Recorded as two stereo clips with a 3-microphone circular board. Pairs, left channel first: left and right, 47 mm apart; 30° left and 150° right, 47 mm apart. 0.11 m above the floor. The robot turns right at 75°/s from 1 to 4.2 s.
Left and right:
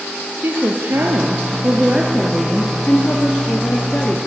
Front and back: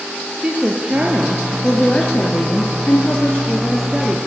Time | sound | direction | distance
0.4 | a woman speaking | 90° right | 1.9 m